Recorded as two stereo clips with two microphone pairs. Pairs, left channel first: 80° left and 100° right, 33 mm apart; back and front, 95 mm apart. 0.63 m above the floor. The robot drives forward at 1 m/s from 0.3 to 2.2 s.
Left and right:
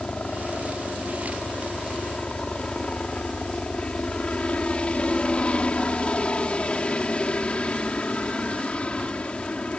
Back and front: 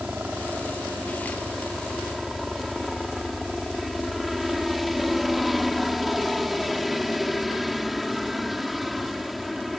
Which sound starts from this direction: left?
A helicopter, at 0.0 s.